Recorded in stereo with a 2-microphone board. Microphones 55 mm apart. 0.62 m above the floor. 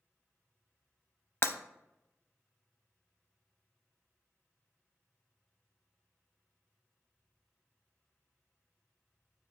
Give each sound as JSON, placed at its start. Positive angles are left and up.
{"t": 1.4, "sound": "breaking glass", "side_deg": 50, "distance_m": 0.6}